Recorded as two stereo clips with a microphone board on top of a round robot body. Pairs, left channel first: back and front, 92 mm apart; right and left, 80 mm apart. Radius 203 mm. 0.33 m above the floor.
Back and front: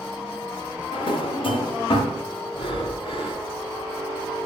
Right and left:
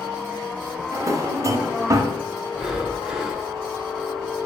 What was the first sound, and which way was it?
A drawer, 145° left.